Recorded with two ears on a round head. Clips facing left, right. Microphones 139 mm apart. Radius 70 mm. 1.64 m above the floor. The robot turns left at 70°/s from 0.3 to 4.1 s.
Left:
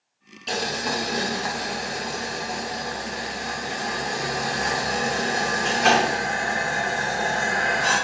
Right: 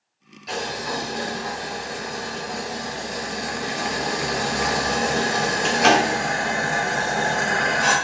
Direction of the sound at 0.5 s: 150° left.